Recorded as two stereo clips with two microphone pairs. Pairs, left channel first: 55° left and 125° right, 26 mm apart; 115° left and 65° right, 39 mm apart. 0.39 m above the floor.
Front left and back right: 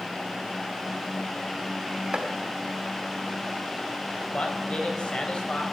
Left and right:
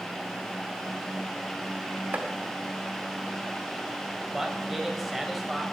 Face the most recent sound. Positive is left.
turn(degrees=20)